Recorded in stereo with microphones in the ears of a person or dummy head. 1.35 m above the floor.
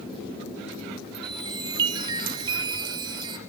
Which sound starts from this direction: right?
A chime, at 1.2 s.